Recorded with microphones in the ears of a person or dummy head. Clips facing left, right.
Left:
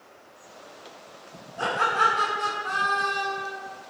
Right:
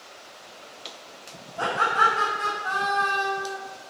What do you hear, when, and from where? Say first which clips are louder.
1.6 s laughter: right 1 dB; 25° right (ahead or behind), 1.2 m; by 3.6 s 45° left (ahead or behind), 1.1 m